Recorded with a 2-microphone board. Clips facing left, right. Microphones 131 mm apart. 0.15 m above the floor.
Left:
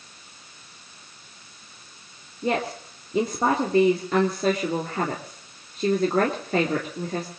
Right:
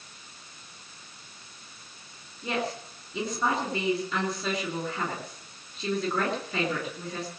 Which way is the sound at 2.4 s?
55° left (ahead or behind).